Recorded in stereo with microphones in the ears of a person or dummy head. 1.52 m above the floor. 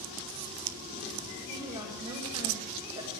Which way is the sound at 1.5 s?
20° right (ahead or behind).